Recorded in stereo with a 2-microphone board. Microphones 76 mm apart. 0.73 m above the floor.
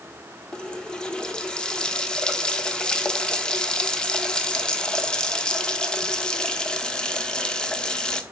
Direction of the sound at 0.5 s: 10° left (ahead or behind).